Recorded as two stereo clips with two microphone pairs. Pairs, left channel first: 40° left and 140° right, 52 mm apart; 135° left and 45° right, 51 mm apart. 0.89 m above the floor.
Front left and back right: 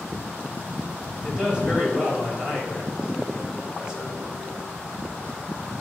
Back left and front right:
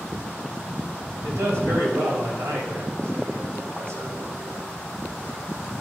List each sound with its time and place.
1.2 s a man speaking: 65° right, 4.5 m